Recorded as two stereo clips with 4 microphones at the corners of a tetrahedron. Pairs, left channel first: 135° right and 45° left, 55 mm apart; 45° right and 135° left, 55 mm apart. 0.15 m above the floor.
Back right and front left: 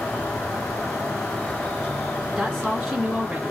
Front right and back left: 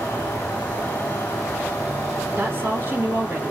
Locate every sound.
0.0 s an insect: 75° right, 0.9 m
2.4 s a woman speaking: 125° left, 1.5 m